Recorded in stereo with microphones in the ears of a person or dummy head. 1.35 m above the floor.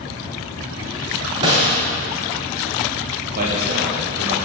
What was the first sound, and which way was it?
A snare drum, 30° right (ahead or behind).